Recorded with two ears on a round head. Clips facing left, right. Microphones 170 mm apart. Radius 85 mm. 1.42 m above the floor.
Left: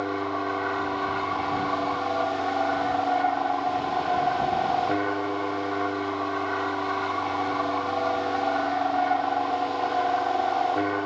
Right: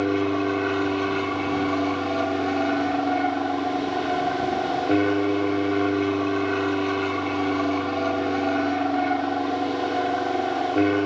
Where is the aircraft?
40° right (ahead or behind).